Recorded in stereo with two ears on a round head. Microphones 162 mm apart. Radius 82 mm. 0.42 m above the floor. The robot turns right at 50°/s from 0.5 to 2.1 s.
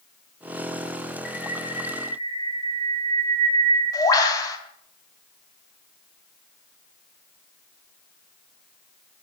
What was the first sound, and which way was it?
A bird, 115° left.